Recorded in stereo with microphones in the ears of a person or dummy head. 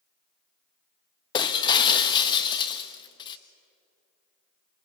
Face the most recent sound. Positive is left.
turn(degrees=25)  # may be behind; listen again after turning